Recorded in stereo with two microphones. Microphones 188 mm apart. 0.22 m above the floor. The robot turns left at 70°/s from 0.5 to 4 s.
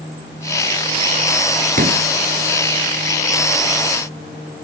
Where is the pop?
50° right (ahead or behind), 0.9 m; by 2.0 s 70° right (ahead or behind), 0.9 m.